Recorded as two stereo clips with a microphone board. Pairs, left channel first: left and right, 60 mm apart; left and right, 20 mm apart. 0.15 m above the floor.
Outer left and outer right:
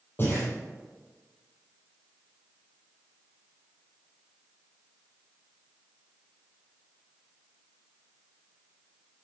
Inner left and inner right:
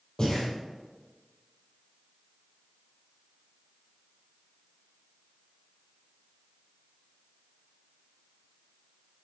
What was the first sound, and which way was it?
Breathing, 35° left (ahead or behind).